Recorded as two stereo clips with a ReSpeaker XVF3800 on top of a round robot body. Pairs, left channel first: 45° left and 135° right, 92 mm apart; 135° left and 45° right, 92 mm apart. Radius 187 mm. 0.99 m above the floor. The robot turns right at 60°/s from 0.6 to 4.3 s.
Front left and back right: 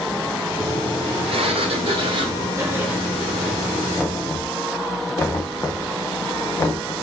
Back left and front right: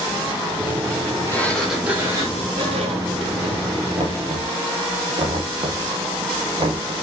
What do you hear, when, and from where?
1.3 s a sliding door: 155° right, 3.5 m; by 3.7 s 10° right, 3.5 m
4.0 s knocking: 35° right, 1.9 m; by 6.9 s 15° right, 1.9 m